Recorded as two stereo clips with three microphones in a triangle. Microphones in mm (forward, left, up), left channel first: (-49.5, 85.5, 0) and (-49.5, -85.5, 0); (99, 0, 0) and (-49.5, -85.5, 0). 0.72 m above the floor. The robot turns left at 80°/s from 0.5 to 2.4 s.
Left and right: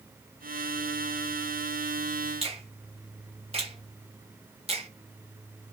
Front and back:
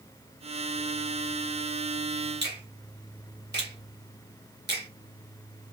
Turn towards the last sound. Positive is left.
turn(degrees=-145)